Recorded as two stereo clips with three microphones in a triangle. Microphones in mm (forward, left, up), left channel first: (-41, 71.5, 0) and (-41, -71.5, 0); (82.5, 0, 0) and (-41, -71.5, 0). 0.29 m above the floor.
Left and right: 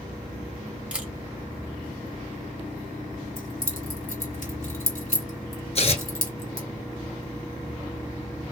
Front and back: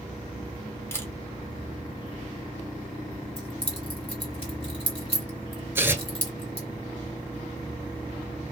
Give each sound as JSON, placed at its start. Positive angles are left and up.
{"t": 0.9, "sound": "a camera shutter", "azimuth_deg": -20, "distance_m": 1.1}
{"t": 3.4, "sound": "keys jangling", "azimuth_deg": 75, "distance_m": 2.0}
{"t": 5.8, "sound": "tearing paper", "azimuth_deg": 135, "distance_m": 0.9}